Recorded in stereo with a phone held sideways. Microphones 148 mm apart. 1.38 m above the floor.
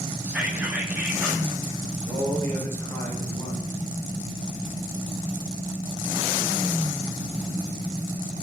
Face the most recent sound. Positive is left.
turn(degrees=20)  # may be behind; listen again after turning